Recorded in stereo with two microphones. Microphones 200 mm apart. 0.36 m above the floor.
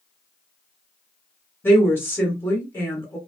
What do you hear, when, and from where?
1.6 s a woman speaking: 10° left (ahead or behind), 1.4 m